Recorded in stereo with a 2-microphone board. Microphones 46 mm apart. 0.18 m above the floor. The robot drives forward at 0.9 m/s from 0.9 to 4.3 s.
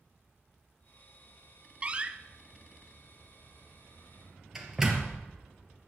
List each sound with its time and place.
1.8 s a door slam: 25° right (ahead or behind), 0.7 m; by 5.2 s 10° right (ahead or behind), 2 m